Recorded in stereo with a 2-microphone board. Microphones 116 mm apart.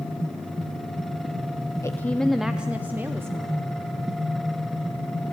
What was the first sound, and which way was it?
A woman speaking, 25° left (ahead or behind).